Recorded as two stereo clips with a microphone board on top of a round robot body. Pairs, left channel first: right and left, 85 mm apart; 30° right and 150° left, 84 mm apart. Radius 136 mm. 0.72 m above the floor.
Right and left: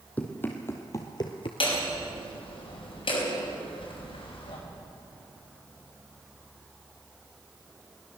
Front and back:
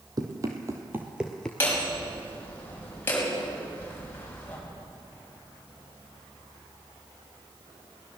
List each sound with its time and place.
0.2 s running footsteps: 165° right, 1.4 m; by 1.5 s 105° right, 0.8 m
1.6 s hammering: 95° right, 5 m